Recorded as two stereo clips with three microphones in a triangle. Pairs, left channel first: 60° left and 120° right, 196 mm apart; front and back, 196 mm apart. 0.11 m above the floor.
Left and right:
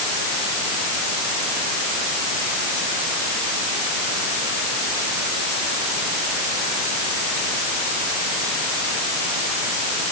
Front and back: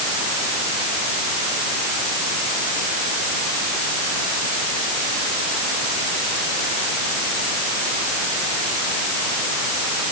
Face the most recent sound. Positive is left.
No sound to turn to.